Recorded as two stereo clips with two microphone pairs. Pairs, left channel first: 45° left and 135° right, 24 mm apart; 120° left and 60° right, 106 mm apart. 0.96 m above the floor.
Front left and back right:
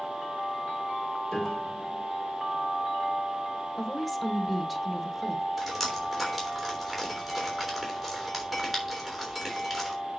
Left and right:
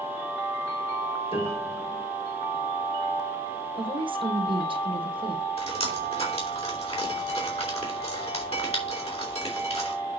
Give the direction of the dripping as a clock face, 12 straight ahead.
8 o'clock.